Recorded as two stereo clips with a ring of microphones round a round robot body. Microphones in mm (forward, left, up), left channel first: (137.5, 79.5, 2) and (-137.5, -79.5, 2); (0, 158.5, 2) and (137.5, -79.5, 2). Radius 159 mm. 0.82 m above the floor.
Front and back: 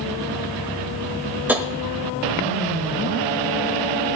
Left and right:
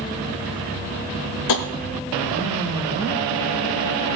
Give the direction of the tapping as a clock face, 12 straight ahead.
8 o'clock.